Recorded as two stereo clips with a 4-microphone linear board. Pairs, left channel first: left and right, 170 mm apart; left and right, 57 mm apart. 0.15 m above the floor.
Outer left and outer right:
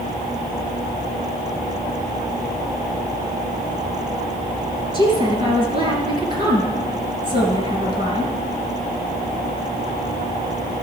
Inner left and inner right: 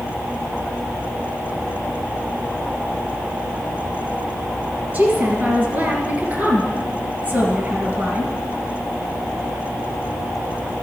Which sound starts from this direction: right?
A woman speaking, at 4.9 s.